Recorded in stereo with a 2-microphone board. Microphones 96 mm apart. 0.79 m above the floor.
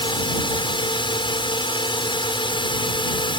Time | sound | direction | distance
0.0 | a drone | 60° left (ahead or behind) | ?